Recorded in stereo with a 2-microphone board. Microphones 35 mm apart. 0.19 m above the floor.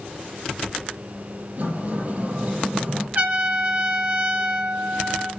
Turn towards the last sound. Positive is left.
turn(degrees=-50)  # may be behind; listen again after turning